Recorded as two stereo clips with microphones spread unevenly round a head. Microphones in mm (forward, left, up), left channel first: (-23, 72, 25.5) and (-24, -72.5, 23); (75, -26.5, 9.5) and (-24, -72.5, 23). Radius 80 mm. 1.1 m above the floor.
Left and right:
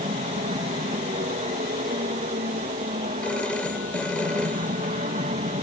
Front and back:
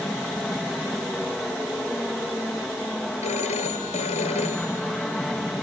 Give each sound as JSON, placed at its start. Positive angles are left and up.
{"t": 0.0, "sound": "an aircraft", "azimuth_deg": -60}
{"t": 3.2, "sound": "a phone ringing", "azimuth_deg": 5}